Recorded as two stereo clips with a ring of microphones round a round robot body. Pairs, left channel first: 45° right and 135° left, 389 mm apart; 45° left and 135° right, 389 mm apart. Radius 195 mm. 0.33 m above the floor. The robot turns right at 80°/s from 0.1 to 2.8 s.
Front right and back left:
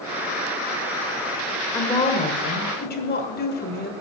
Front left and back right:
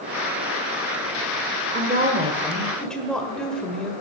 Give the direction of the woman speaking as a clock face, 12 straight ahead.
4 o'clock.